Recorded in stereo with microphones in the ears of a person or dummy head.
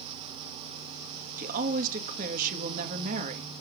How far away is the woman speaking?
About 1.7 m.